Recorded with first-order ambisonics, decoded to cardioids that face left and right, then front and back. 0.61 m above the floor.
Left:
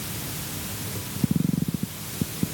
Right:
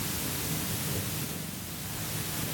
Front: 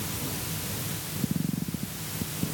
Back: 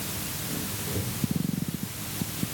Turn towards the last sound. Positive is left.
No sound to turn to.